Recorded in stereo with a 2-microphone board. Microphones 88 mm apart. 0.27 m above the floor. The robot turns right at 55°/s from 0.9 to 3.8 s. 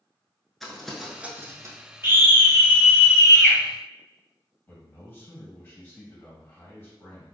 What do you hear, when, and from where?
0.6 s crumpling: 5° left (ahead or behind), 0.8 m; by 1.8 s 45° right (ahead or behind), 0.8 m
2.0 s a scream: 55° right, 1.7 m; by 3.6 s 30° left, 1.7 m
4.7 s a man speaking: 20° left (ahead or behind), 1.8 m